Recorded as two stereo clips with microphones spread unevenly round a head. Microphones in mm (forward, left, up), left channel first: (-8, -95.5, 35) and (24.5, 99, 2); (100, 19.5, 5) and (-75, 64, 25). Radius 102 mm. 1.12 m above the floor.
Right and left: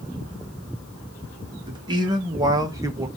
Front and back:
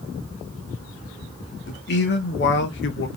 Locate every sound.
1.7 s a man speaking: 10° left, 1.3 m; by 3.1 s 5° left, 0.6 m